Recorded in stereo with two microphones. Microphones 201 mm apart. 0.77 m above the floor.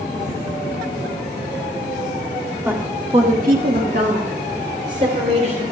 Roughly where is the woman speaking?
Centre.